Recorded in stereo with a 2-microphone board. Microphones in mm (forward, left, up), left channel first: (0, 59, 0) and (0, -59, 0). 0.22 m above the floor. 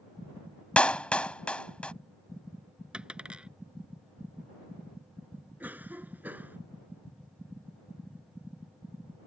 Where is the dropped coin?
10° right (ahead or behind).